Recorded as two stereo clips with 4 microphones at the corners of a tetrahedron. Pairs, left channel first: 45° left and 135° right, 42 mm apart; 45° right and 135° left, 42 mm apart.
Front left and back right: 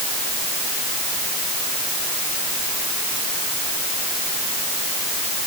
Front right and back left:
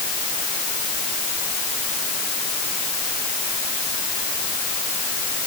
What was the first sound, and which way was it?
Only background noise.